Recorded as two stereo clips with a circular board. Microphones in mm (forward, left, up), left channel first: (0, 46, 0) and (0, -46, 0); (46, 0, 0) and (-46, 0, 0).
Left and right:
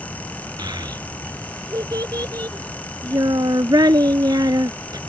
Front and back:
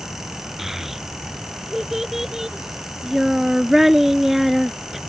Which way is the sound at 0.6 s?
95° right.